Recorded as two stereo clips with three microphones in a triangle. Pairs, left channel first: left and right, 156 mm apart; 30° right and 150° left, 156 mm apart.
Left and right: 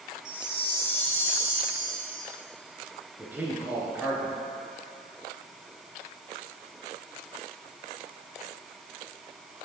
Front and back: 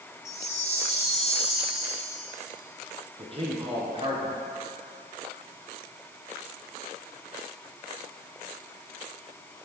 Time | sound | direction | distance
0.2 | a chime | 70° right | 1.7 m
3.2 | a man speaking | 165° right | 1.8 m